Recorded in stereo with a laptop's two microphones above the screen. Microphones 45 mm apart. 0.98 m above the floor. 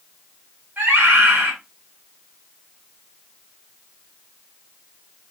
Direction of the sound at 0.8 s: 40° right (ahead or behind).